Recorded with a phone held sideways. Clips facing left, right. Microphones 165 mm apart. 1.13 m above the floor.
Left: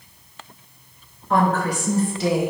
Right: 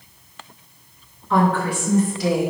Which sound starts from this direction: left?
A woman speaking, at 1.3 s.